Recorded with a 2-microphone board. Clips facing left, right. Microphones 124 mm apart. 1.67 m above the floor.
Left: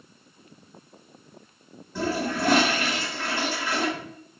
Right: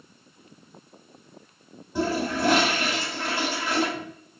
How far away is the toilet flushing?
About 1.6 m.